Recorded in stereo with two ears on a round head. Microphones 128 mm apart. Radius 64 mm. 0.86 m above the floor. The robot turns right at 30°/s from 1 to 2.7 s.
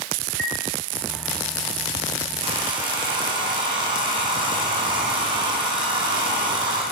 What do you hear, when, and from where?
0.4 s a chime: 70° right (ahead or behind), 7 m
2.4 s a hair dryer: 40° right (ahead or behind), 9 m; by 6.8 s 30° right (ahead or behind), 9 m